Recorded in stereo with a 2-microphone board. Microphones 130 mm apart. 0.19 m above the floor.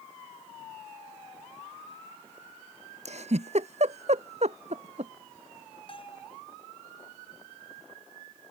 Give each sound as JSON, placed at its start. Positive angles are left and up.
{"t": 3.0, "sound": "a giggle", "side_deg": -60}
{"t": 5.9, "sound": "a bell", "side_deg": 40}